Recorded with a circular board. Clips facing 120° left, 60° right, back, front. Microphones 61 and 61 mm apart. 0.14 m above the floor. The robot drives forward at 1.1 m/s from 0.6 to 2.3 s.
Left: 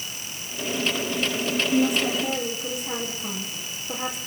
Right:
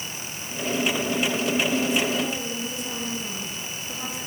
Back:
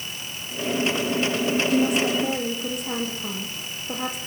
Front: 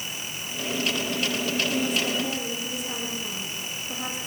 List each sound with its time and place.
1.7 s a woman speaking: 165° right, 5 m; by 4.2 s 170° right, 6 m